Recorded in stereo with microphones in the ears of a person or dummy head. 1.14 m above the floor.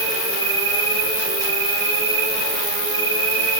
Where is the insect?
60° right (ahead or behind), 1.0 m.